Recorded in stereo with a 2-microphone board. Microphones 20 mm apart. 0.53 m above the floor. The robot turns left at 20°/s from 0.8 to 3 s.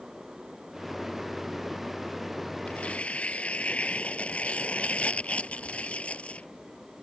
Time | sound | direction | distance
2.7 | tearing paper | 85° left | ?